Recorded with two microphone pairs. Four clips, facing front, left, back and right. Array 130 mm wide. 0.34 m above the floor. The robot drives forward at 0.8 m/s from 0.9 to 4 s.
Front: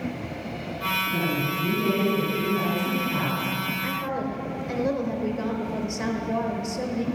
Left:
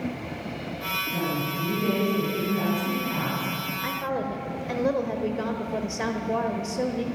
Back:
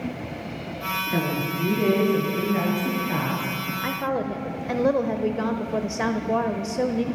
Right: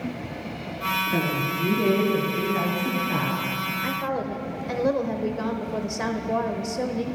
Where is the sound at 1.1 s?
135° right, 4.5 m; by 3.6 s 150° right, 6.5 m.